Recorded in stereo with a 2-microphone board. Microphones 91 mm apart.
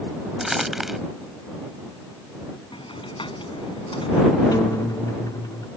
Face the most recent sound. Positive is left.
turn(degrees=45)  # may be behind; listen again after turning